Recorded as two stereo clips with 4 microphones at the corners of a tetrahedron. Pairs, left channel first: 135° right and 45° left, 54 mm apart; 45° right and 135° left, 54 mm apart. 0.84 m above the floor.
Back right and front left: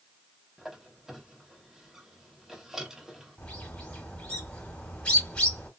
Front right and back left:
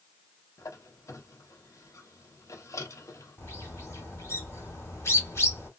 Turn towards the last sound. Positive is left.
turn(degrees=-70)